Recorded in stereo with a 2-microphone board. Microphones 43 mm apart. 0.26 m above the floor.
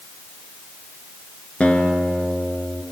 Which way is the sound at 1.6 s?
25° left (ahead or behind).